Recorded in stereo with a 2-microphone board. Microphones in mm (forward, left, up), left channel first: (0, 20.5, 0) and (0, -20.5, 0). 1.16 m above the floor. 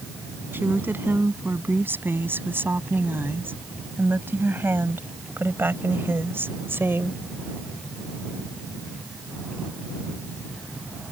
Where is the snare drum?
No snare drum in this recording.